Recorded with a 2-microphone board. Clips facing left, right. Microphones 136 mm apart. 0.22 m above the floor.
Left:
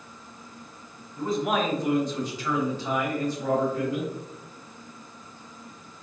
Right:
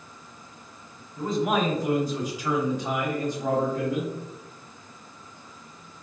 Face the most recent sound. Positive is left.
turn(degrees=-25)  # may be behind; listen again after turning